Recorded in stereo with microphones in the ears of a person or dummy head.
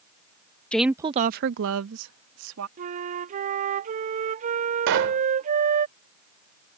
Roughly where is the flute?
Right.